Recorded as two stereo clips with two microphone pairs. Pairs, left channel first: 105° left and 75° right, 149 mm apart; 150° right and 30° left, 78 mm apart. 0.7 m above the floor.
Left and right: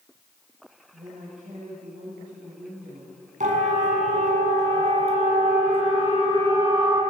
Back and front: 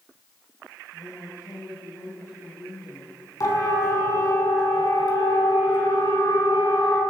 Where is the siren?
110° right, 6.5 m; by 7.0 s 140° right, 6.5 m.